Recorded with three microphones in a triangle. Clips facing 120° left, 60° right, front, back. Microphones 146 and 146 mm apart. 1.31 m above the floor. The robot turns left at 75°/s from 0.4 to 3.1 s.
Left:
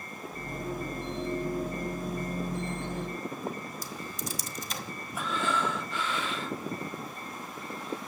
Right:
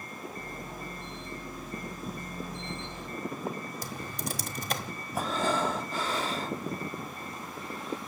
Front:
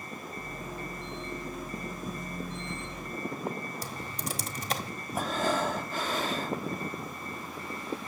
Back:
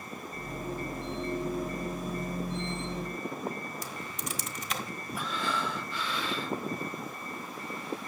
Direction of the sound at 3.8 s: 50° right.